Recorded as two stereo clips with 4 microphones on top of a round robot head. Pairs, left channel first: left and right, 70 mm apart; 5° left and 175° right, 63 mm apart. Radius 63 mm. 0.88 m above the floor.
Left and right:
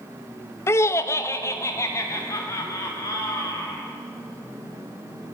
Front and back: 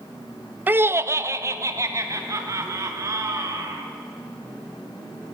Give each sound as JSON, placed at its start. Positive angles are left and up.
{"t": 0.7, "sound": "laughter", "azimuth_deg": 130, "distance_m": 0.5}